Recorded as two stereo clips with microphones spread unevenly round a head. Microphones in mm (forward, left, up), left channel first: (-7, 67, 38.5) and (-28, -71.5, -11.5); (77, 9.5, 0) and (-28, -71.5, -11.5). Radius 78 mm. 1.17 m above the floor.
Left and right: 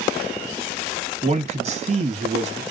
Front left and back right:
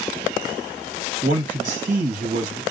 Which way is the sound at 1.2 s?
125° right.